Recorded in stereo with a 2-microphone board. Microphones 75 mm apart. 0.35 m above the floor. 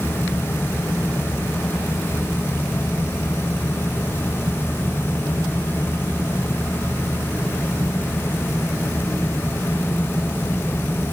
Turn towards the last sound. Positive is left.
No sound to turn to.